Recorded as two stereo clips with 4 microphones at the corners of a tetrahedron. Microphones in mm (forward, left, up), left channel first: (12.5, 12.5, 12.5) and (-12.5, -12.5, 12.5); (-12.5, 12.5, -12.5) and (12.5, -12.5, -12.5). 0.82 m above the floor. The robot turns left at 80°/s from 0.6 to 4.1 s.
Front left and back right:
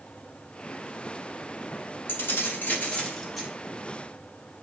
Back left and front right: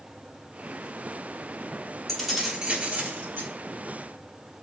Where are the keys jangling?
55° left, 1.0 m; by 3.5 s 60° right, 1.0 m.